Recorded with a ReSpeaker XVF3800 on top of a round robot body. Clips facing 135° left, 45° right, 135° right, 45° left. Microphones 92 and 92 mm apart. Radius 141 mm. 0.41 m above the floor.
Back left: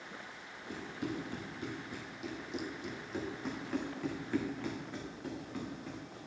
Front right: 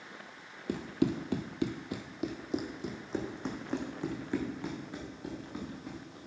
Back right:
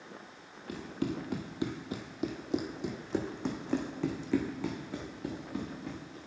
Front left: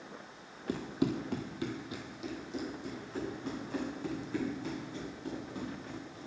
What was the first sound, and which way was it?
Running footsteps, 15° right.